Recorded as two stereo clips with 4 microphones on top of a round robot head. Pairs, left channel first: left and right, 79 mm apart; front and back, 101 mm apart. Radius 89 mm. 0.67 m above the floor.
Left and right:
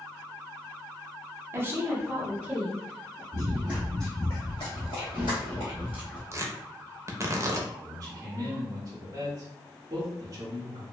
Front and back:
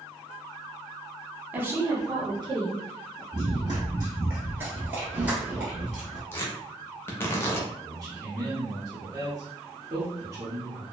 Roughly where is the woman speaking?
Behind right.